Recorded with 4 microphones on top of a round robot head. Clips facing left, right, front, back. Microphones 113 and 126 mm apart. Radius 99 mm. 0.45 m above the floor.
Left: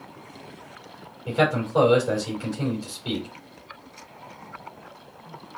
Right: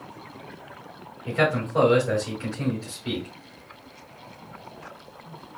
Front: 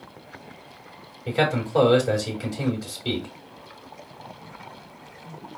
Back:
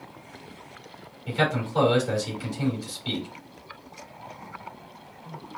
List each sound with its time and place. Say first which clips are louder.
1.3 s a man speaking: left 1 dB, front 3 dB; 20° left, 3 m